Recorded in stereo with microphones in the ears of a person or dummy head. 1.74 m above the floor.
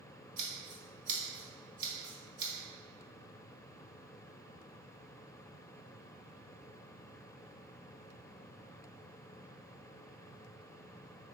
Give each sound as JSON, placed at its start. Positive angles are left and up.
{"t": 0.4, "sound": "scissors", "side_deg": -70, "distance_m": 1.8}